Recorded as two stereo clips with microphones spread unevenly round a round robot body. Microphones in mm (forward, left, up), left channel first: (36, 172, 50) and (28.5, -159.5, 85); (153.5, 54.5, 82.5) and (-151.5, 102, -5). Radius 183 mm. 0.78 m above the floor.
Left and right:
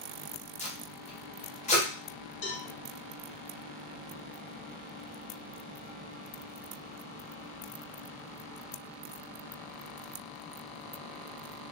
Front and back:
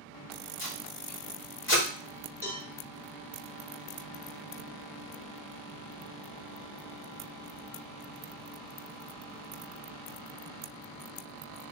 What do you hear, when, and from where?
0.6 s tape being pulled: 45° left, 1.1 m
2.4 s a cowbell: 100° left, 1.5 m